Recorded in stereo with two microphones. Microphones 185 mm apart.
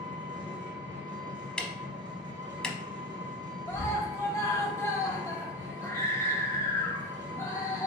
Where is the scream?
15° left (ahead or behind), 0.9 m.